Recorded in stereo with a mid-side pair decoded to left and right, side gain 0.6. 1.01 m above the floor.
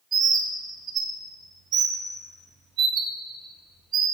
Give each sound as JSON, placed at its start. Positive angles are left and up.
{"t": 0.1, "sound": "a bird", "azimuth_deg": -50, "distance_m": 0.9}